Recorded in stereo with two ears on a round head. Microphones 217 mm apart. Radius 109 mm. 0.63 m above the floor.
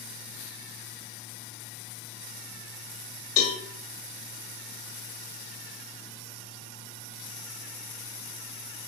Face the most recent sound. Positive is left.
turn(degrees=70)  # may be behind; listen again after turning